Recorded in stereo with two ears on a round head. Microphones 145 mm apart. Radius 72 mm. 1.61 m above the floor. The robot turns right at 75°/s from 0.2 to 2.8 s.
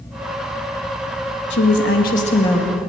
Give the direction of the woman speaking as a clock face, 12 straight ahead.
9 o'clock.